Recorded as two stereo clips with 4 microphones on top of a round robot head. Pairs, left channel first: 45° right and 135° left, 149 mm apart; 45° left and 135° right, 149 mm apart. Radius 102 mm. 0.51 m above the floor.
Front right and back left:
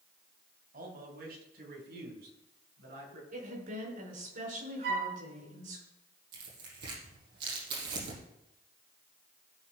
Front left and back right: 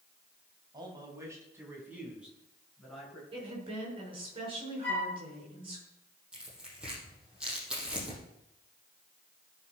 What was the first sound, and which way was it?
A man speaking, 165° left.